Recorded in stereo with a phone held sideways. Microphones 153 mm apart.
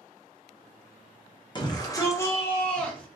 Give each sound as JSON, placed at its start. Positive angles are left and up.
{"t": 1.6, "sound": "a shout", "side_deg": 30, "distance_m": 1.4}